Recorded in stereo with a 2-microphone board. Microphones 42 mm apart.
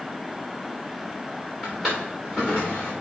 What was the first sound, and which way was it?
A drawer, 5° left (ahead or behind).